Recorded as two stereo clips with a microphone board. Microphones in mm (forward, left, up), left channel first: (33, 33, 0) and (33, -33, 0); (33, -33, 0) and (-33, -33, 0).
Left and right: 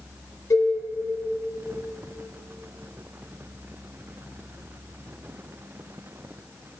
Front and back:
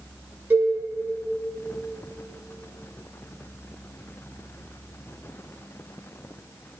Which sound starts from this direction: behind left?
A cowbell, at 0.5 s.